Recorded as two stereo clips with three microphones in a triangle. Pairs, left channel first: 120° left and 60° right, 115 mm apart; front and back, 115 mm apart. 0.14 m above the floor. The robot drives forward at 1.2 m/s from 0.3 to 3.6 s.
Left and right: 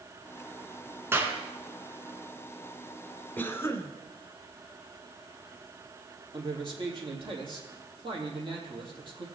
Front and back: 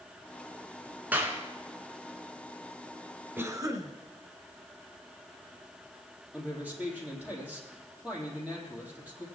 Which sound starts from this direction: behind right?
A clap, at 1.1 s.